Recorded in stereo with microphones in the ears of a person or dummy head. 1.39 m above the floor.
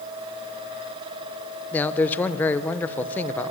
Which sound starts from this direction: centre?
A man speaking, at 1.7 s.